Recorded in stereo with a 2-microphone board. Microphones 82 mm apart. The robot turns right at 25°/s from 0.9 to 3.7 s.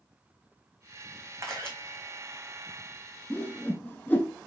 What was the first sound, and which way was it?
A camera shutter, 35° right (ahead or behind).